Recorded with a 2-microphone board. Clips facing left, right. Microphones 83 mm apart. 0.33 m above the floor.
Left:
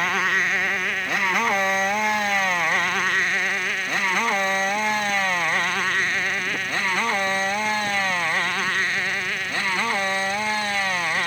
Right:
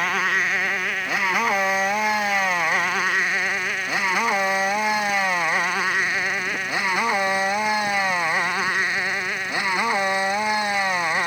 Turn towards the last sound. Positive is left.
turn(degrees=-15)  # may be behind; listen again after turning